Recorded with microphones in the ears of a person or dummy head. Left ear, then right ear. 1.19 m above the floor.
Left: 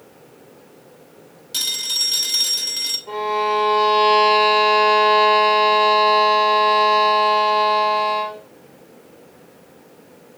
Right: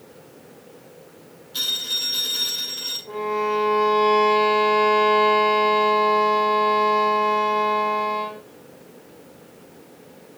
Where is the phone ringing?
65° left (ahead or behind), 5.5 m.